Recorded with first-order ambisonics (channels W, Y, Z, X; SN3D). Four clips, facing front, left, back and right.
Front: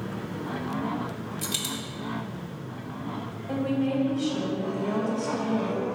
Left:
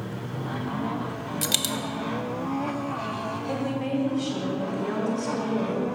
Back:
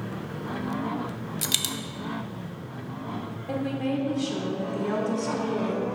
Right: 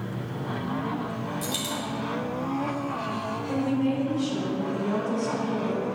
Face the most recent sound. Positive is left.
turn(degrees=165)